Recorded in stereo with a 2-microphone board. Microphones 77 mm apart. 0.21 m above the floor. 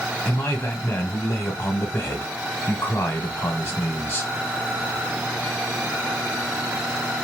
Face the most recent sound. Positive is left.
turn(degrees=25)  # may be behind; listen again after turning